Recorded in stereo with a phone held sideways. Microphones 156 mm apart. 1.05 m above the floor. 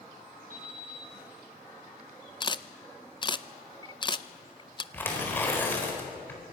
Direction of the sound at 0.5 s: 65° right (ahead or behind).